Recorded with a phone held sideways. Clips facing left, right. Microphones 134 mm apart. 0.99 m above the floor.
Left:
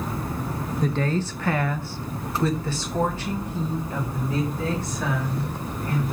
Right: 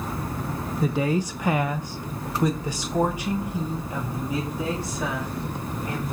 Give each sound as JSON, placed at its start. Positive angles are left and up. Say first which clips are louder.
{"t": 0.8, "sound": "a woman speaking", "louder": "right 2 dB", "side_deg": -10, "distance_m": 0.5}